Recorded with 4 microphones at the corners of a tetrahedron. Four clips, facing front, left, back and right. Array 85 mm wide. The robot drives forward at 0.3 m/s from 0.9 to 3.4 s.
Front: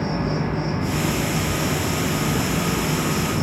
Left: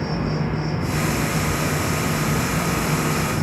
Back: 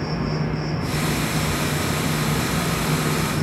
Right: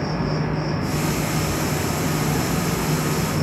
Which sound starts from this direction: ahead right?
An insect, at 0.0 s.